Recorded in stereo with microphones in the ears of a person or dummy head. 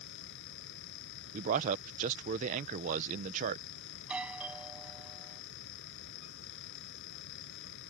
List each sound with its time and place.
0.0 s a fan: 70° left (ahead or behind)
1.3 s a man speaking: 40° right (ahead or behind)
4.0 s a doorbell: 10° right (ahead or behind)